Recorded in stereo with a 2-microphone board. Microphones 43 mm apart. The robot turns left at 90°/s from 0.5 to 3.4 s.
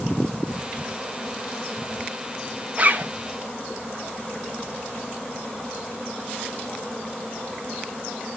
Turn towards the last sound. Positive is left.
turn(degrees=-90)